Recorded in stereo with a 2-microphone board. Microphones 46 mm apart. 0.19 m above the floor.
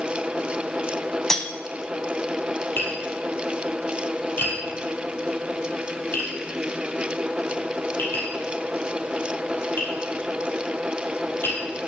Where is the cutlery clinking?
10° left (ahead or behind), 0.6 m.